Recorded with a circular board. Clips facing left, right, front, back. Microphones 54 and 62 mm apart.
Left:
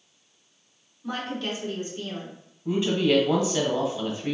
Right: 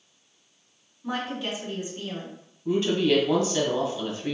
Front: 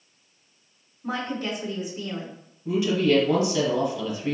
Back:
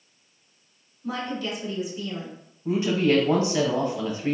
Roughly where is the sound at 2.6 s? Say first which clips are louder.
Even, even; behind.